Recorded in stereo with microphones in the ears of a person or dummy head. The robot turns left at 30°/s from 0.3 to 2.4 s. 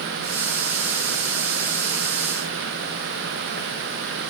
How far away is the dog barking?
I don't hear a dog barking.